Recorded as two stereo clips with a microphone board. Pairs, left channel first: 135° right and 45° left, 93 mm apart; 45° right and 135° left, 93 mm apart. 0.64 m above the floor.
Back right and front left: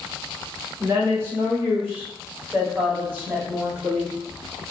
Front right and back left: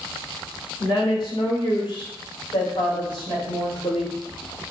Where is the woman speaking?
15° right, 1.7 m; by 4.1 s 25° right, 3.5 m.